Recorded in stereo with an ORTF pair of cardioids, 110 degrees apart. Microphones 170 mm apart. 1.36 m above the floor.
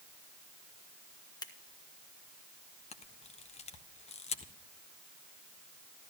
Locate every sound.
1.4 s scissors: 20° left, 1.6 m
2.9 s a camera shutter: 40° left, 1.3 m